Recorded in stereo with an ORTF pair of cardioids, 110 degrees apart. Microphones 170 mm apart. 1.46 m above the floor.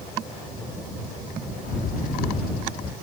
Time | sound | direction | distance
1.6 | a bird | 55° left | ?